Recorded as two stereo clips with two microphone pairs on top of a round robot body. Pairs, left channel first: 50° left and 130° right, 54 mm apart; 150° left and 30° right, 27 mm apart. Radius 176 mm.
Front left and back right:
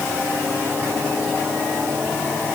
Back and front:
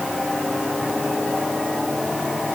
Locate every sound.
Only background noise.